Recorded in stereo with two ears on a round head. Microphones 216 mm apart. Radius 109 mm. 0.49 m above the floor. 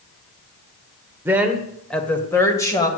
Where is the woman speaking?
10° right (ahead or behind), 1.4 m; by 2.9 s 15° left (ahead or behind), 2.5 m.